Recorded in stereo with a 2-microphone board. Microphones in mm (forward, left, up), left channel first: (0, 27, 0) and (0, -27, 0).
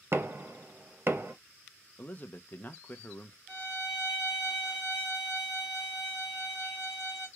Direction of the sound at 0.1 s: 45° right (ahead or behind).